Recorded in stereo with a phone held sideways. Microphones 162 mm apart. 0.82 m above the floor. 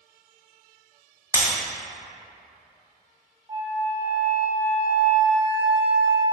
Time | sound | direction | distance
1.3 | breaking glass | 20° right (ahead or behind) | 1.5 m
3.5 | a flute | 30° right (ahead or behind) | 0.8 m